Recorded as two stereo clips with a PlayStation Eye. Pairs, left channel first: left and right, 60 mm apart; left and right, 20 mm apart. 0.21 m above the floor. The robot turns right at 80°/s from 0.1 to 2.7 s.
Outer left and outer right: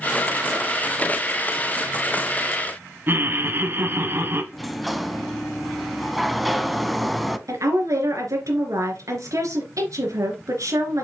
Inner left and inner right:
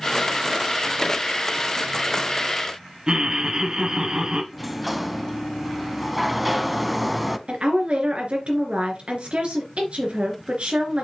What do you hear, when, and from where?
3.1 s laughter: 40° right (ahead or behind), 1.2 m
4.5 s a sliding door: centre (ahead or behind), 0.6 m
7.5 s a woman speaking: 70° right (ahead or behind), 3 m